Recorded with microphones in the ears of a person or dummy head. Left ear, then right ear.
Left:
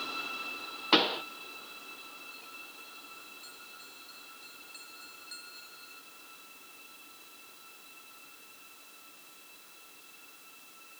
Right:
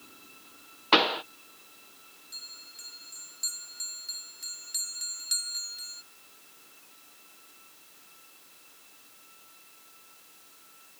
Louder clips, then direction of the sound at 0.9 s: Right 3 dB; 25° right (ahead or behind).